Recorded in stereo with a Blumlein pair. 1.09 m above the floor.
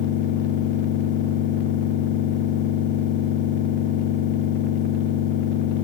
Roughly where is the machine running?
Ahead left.